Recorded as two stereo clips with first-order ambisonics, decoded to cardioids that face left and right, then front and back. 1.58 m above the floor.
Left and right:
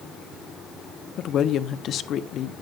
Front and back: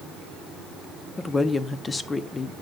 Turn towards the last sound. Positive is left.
turn(degrees=70)